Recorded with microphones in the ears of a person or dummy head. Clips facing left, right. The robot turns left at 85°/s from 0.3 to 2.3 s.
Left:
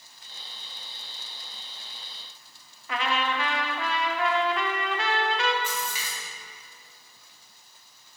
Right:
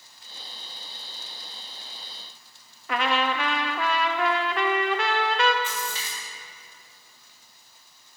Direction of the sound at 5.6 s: 15° left (ahead or behind).